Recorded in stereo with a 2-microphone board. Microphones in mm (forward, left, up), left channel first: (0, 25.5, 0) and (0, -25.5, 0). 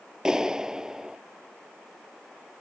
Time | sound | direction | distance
0.2 | a clap | 15° right (ahead or behind) | ?